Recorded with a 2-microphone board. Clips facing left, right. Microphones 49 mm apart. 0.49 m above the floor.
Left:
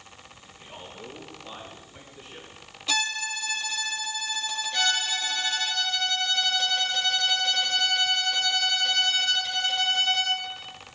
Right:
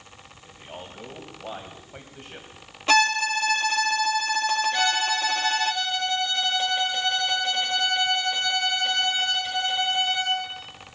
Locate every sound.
0.5 s a man speaking: 35° right (ahead or behind), 3.5 m; by 2.5 s 70° right (ahead or behind), 3.5 m
2.9 s a violin: 45° right (ahead or behind), 0.5 m
4.7 s a violin: 25° right (ahead or behind), 1.7 m